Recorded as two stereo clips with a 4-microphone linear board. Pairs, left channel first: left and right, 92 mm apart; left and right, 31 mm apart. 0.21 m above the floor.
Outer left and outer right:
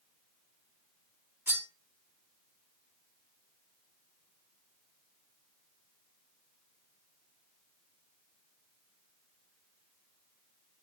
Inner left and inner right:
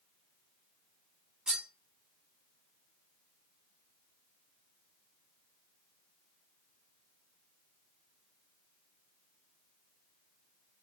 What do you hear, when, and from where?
1.5 s cutlery clinking: 25° right (ahead or behind), 0.9 m